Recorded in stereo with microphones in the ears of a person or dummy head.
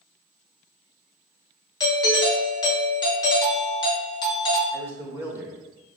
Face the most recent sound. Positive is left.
turn(degrees=-10)  # may be behind; listen again after turning